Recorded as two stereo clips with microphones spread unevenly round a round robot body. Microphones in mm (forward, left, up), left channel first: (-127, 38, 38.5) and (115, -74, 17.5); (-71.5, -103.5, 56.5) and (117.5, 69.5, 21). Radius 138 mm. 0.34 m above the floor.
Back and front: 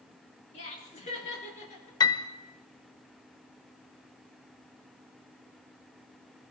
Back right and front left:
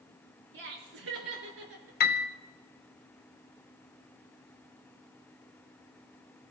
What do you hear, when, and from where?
0.5 s laughter: 90° left, 5 m
2.0 s a piano: 140° right, 1.0 m